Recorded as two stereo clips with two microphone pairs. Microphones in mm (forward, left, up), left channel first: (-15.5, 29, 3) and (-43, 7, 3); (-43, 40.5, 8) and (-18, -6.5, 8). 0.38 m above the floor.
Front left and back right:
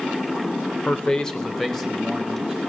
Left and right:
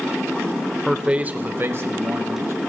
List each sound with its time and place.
0.8 s a man speaking: 25° left, 0.9 m; by 2.5 s 55° right, 2.5 m